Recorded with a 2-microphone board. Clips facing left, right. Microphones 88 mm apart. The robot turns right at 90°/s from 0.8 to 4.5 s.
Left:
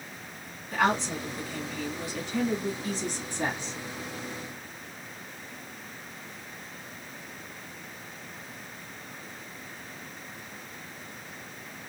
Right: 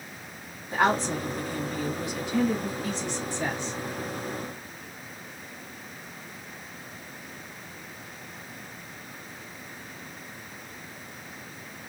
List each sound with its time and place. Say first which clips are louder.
0.7 s a woman speaking: right 2 dB; 140° right, 2 m; by 3.7 s 125° left, 2 m